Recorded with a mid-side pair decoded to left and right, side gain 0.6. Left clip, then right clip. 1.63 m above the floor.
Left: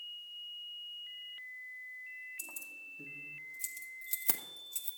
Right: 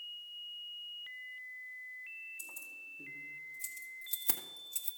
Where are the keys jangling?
45° left, 2.5 m; by 4.9 s 5° right, 1.3 m.